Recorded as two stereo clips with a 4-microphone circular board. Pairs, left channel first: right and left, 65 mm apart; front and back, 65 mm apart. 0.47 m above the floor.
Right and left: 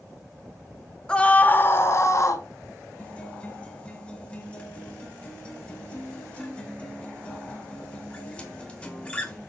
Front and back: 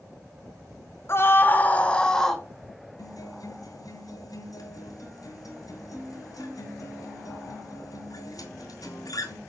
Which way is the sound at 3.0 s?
20° right.